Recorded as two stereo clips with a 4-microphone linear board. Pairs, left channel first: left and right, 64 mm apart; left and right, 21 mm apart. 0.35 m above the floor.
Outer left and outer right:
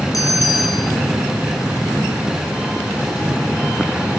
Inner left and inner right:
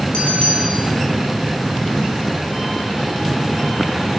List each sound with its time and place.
0.1 s a bell: 60° left (ahead or behind), 9.5 m